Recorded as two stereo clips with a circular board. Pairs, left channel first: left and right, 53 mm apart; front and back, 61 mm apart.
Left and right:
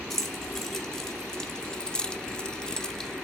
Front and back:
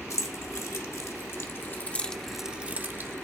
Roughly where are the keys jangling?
Ahead.